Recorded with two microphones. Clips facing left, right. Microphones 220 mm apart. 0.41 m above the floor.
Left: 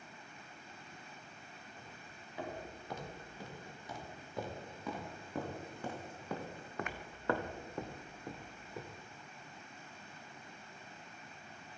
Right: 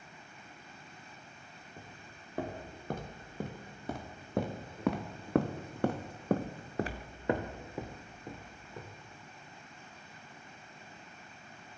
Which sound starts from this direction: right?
Footsteps, at 1.8 s.